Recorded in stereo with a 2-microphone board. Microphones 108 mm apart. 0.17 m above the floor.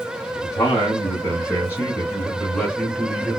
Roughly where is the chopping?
No chopping in this recording.